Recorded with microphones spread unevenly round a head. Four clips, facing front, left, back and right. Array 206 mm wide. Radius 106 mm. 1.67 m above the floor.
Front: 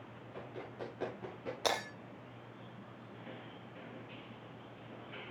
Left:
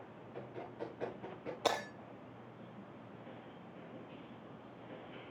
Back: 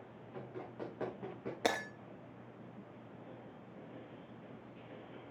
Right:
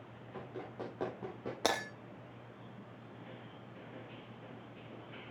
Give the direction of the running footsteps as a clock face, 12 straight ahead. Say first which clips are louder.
Right 1 dB, even; 4 o'clock.